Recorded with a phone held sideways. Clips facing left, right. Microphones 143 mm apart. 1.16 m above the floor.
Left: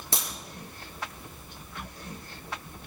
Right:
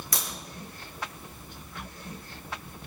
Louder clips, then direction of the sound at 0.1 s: Left 2 dB; 30° left (ahead or behind).